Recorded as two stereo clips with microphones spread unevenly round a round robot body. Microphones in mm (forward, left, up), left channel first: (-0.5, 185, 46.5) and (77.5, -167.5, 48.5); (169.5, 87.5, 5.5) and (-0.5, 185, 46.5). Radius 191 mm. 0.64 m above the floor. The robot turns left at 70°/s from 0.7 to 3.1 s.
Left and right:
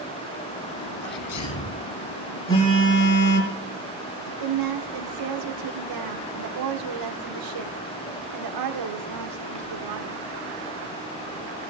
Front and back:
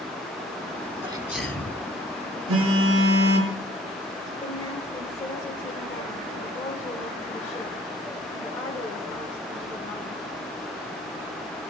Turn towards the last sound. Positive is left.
turn(degrees=-105)